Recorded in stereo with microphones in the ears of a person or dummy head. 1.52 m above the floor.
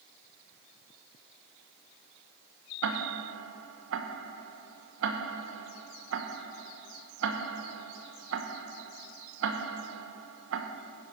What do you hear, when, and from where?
2.8 s ticking: 85° right, 1.2 m